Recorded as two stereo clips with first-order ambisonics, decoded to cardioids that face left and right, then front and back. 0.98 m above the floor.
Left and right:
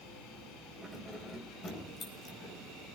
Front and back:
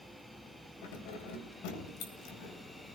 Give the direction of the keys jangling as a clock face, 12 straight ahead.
12 o'clock.